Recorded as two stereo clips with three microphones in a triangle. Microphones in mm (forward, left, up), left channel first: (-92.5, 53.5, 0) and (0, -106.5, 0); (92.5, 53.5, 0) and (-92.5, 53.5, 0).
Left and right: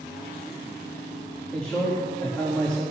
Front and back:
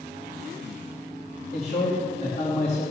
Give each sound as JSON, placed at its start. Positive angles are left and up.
{"t": 1.5, "sound": "a man speaking", "azimuth_deg": 35, "distance_m": 3.5}